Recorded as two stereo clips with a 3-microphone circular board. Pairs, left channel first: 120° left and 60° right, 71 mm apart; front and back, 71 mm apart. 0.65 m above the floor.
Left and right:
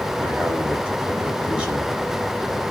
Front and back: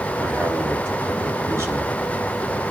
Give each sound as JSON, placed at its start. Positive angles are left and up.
{"t": 0.2, "sound": "a man speaking", "azimuth_deg": -135, "distance_m": 4.0}